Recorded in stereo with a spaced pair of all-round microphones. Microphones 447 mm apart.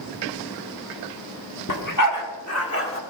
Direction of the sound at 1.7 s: 50° left (ahead or behind).